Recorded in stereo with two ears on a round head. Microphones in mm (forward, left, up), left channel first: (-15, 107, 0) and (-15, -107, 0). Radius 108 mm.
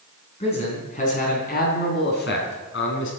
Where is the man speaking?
25° left (ahead or behind), 4 m; by 3.1 s 60° left (ahead or behind), 4 m.